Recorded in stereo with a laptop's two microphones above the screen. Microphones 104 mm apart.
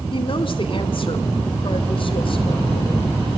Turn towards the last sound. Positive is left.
turn(degrees=55)  # may be behind; listen again after turning